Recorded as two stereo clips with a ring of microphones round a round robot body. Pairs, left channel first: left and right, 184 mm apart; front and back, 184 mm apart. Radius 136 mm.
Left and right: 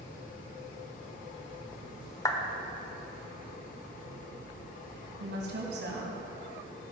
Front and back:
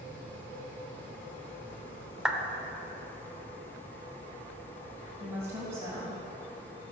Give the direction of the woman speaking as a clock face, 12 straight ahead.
3 o'clock.